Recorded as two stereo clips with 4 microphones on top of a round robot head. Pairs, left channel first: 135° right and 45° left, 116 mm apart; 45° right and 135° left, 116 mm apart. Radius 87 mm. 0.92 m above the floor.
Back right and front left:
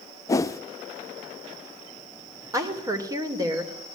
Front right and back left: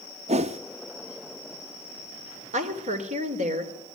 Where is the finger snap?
No finger snap in this recording.